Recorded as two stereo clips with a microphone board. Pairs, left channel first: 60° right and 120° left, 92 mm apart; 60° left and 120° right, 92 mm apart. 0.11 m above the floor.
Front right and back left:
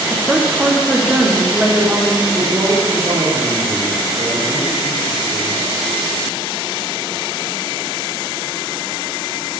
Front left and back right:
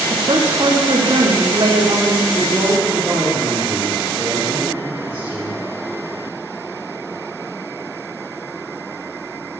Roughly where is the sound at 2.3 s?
Behind.